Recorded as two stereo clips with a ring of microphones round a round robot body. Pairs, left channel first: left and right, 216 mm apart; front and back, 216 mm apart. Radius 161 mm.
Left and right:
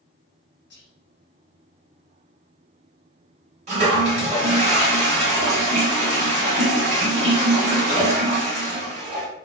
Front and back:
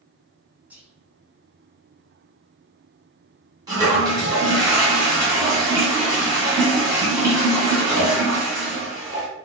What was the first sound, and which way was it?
Whispering, 100° left.